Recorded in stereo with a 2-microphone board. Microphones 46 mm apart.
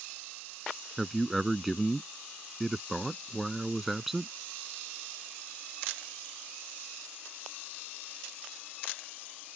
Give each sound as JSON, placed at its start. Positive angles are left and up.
{"t": 1.0, "sound": "a man speaking", "side_deg": -5}